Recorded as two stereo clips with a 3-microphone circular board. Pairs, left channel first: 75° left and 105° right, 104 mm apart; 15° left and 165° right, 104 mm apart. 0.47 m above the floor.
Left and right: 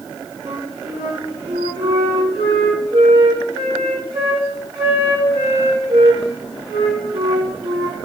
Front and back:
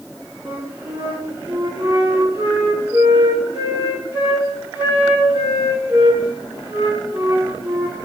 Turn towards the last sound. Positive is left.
turn(degrees=-105)